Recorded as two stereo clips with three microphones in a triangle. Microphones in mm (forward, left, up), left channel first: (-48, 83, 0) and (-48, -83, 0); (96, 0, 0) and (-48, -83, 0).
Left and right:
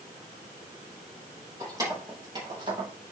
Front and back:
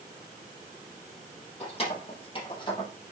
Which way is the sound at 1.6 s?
20° right.